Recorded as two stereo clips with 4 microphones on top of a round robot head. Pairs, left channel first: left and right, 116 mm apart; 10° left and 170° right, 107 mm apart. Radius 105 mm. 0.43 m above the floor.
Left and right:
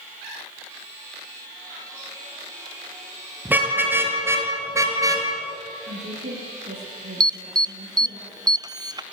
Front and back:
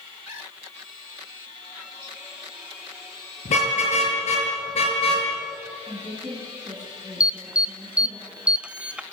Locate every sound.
3.5 s a car horn: 15° right, 6.5 m; by 5.3 s 30° right, 5.5 m
5.9 s a woman speaking: 90° right, 9 m
7.2 s an alarm: 100° right, 0.8 m